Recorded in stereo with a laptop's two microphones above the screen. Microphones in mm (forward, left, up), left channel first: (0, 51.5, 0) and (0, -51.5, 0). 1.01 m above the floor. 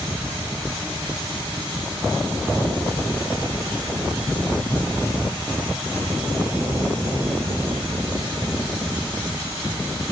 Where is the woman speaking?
No woman speaking in this recording.